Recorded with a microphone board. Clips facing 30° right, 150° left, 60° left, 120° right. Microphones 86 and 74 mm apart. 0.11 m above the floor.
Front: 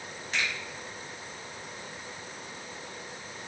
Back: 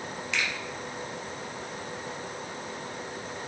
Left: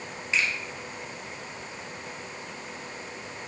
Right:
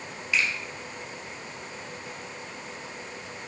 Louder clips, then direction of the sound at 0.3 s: Even, even; straight ahead.